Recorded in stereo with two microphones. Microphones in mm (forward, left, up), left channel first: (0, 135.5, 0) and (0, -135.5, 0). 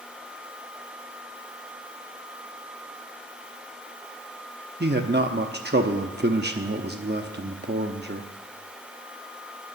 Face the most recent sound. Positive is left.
turn(degrees=-40)  # may be behind; listen again after turning